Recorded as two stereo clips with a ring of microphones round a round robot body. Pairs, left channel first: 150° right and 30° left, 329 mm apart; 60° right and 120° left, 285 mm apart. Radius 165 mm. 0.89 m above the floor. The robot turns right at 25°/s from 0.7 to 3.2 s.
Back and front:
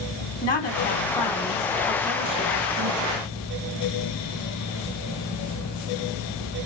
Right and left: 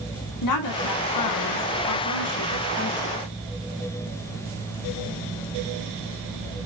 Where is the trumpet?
No trumpet in this recording.